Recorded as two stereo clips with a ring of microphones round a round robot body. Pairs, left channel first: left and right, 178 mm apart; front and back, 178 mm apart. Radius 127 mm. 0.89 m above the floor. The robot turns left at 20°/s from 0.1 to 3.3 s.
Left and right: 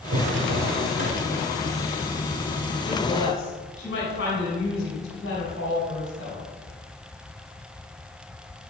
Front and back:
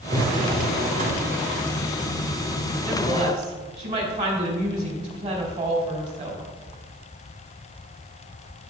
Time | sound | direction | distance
0.1 | a drawer | 110° right | 3 m
2.9 | a woman speaking | 140° left | 3.5 m